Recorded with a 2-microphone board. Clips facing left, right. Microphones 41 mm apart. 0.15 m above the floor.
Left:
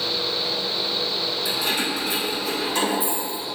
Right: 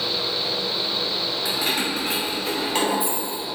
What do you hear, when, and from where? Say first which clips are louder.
1.4 s keys jangling: right 1 dB; 55° right (ahead or behind), 1.6 m; by 3.4 s 65° right (ahead or behind), 2.5 m